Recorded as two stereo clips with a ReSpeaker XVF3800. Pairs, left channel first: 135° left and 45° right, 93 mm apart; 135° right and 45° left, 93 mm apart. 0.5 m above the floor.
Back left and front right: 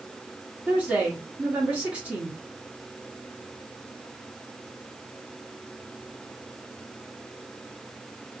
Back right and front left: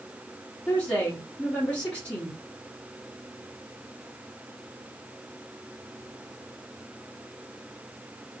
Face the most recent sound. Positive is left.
turn(degrees=-90)